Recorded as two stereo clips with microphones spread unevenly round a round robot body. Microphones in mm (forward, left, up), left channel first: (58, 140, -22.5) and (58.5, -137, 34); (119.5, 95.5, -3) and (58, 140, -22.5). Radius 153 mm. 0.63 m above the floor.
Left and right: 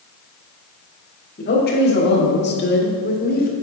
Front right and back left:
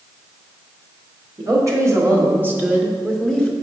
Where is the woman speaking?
135° left, 1.7 m; by 3.5 s 55° left, 1.4 m.